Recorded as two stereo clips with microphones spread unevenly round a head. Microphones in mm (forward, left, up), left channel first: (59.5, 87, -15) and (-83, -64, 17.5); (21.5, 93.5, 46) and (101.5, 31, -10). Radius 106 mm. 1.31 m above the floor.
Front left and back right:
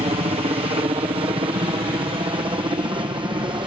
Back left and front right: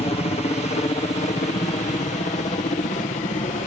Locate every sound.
0.0 s a helicopter: 175° left; by 3.7 s 155° left